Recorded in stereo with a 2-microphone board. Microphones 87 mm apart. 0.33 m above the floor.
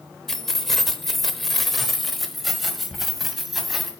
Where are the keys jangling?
5° left (ahead or behind), 0.7 m; by 3.9 s centre (ahead or behind), 1.7 m.